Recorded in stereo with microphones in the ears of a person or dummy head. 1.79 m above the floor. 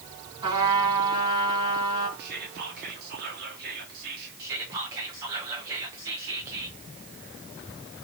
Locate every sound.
0.4 s a trumpet: 30° right (ahead or behind), 3 m
2.2 s whispering: 60° right (ahead or behind), 1.7 m
4.4 s whispering: 20° right (ahead or behind), 0.7 m